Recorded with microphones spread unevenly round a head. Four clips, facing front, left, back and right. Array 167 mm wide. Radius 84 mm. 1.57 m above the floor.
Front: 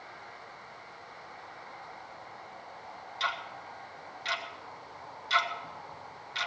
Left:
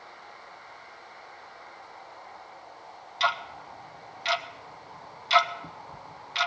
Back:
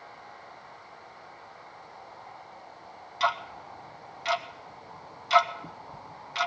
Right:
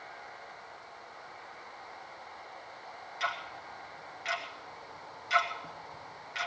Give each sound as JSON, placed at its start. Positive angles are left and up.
{"t": 3.2, "sound": "ticking", "azimuth_deg": 150, "distance_m": 0.6}